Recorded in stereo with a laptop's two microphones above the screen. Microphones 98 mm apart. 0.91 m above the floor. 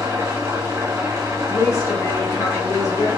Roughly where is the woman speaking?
Left.